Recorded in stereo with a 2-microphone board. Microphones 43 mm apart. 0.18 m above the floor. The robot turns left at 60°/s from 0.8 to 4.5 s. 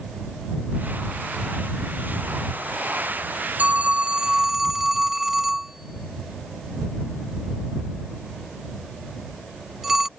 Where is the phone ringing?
40° right (ahead or behind); by 10.1 s 10° right (ahead or behind).